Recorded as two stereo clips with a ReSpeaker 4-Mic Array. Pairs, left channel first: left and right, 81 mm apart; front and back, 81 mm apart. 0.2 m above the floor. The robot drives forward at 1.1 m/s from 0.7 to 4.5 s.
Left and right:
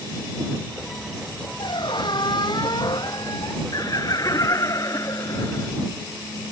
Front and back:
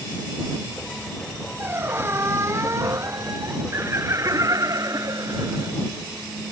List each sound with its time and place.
1.6 s a squeak: 115° left; by 3.8 s 130° left
3.7 s laughter: 125° left; by 5.7 s 135° left